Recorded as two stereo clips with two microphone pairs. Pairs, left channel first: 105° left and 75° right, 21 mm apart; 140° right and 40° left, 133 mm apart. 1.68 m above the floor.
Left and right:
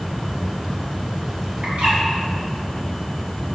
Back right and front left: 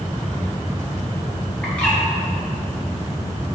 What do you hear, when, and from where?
1.6 s a bird: 60° right, 4 m